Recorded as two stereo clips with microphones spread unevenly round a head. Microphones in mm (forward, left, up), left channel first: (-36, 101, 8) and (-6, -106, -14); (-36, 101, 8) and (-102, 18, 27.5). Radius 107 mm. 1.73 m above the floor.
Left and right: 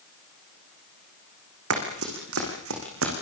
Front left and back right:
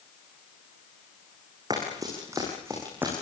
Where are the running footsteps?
60° right, 7.5 m; by 3.1 s 50° right, 7.5 m.